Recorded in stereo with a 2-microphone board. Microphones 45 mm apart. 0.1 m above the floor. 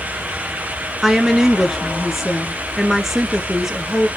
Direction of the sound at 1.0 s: 10° right (ahead or behind).